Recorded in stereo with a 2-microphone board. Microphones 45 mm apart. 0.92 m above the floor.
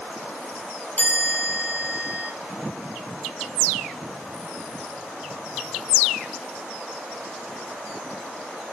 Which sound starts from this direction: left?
A chime, at 1.0 s.